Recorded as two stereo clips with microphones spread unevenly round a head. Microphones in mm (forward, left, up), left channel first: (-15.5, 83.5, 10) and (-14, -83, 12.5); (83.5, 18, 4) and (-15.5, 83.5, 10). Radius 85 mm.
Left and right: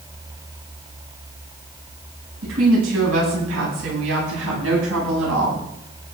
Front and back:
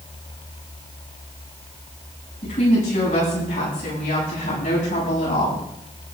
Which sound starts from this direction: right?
A woman speaking, at 2.4 s.